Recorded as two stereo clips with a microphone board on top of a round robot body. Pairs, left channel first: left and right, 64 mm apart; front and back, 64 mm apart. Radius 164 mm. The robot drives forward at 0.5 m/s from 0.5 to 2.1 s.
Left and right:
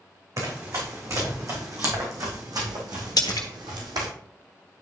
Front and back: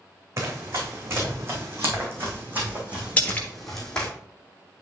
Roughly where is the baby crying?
No baby crying in this recording.